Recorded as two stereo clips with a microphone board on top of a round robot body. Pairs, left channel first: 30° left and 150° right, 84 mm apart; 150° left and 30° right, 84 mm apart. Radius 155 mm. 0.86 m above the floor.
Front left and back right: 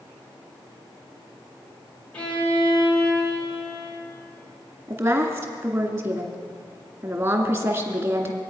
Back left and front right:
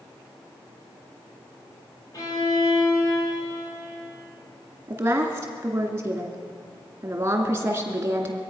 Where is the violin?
105° left, 3.5 m.